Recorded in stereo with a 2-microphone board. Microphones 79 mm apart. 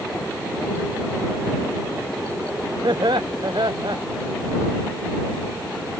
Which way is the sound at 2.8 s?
70° right (ahead or behind).